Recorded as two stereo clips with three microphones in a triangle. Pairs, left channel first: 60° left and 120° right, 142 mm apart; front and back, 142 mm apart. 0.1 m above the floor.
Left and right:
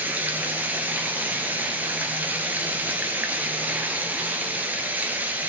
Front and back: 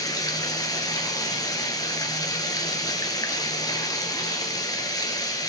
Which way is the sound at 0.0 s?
50° right.